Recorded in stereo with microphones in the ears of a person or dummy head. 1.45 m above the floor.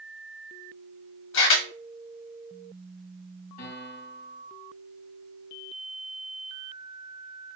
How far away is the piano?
About 1.6 m.